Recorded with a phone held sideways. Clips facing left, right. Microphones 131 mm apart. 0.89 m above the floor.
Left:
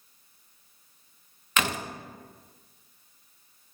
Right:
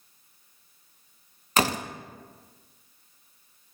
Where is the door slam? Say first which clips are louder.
Right 4 dB; 40° right (ahead or behind), 0.5 m.